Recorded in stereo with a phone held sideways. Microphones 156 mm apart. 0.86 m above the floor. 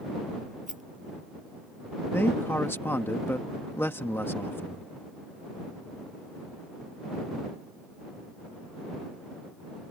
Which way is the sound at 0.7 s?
50° right (ahead or behind).